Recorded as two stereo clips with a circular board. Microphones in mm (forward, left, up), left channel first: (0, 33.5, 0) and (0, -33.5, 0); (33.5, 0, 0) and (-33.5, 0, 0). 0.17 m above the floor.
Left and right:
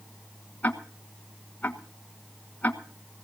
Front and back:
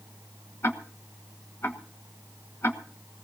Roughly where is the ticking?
Ahead left.